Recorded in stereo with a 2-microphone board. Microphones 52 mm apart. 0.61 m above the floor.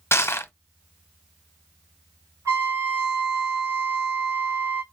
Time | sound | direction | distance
0.1 | crushing | 55° left (ahead or behind) | 0.6 m
2.5 | a trumpet | 75° right (ahead or behind) | 2.5 m